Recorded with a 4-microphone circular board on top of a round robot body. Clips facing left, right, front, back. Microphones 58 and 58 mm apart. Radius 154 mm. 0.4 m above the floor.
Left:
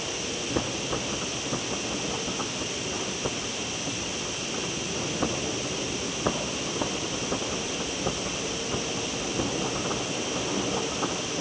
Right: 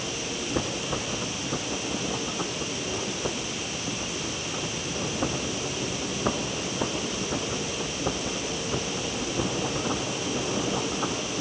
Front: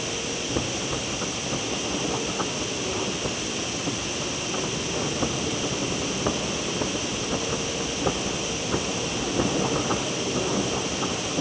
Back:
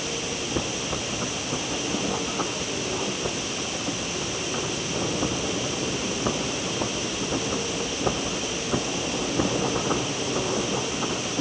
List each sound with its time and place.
Only background noise.